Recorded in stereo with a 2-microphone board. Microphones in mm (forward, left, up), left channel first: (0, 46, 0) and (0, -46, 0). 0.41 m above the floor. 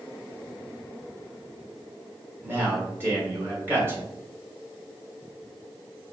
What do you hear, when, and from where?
2.4 s a man speaking: 25° right (ahead or behind), 2.5 m